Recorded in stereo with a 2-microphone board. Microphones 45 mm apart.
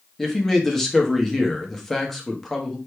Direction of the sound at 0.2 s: 5° left (ahead or behind).